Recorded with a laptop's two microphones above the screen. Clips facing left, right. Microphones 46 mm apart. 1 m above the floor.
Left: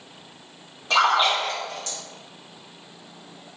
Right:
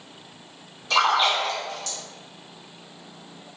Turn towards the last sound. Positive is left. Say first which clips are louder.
# left 1 dB
turn(degrees=35)  # may be behind; listen again after turning